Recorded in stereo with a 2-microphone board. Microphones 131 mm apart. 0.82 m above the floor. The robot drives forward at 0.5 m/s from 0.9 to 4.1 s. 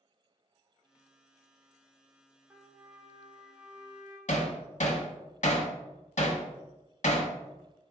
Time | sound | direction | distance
2.5 | a trumpet | 15° right (ahead or behind) | 0.6 m
4.3 | hammering | 65° left (ahead or behind) | 0.8 m